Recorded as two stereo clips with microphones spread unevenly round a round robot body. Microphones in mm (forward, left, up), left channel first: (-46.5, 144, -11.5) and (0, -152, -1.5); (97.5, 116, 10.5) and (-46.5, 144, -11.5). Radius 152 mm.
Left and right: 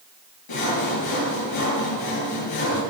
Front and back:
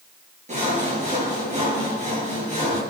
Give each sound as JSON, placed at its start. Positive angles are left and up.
{"t": 0.5, "sound": "sawing", "azimuth_deg": 130, "distance_m": 7.0}